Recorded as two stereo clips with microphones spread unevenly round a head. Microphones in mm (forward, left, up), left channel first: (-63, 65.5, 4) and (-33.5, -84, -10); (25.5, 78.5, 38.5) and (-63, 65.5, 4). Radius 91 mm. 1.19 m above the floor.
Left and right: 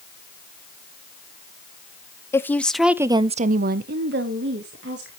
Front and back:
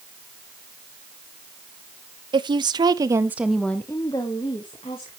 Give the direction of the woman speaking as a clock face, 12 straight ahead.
6 o'clock.